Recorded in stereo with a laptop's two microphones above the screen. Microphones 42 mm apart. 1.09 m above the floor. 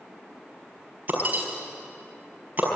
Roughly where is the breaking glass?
Right.